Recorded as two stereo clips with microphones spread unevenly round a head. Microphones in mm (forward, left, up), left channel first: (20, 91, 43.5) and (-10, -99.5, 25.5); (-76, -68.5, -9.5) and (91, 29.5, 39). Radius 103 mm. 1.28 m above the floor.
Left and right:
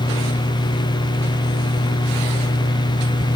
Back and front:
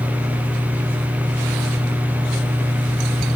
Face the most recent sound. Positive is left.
turn(degrees=135)